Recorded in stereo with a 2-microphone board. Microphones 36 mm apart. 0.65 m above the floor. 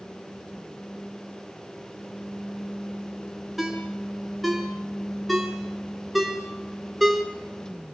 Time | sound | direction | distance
3.6 | a ringtone | 5° right (ahead or behind) | 5 m